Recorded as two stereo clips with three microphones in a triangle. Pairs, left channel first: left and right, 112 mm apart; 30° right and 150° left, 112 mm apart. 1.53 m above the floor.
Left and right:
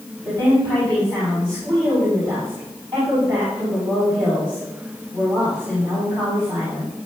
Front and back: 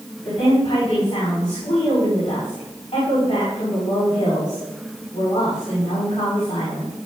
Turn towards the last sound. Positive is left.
turn(degrees=-40)